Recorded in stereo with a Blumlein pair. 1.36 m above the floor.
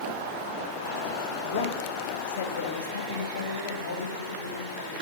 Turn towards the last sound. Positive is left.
turn(degrees=75)